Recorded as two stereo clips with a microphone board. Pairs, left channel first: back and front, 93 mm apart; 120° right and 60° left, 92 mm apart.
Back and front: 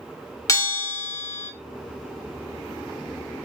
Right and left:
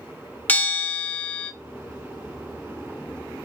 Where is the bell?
175° right, 0.7 m.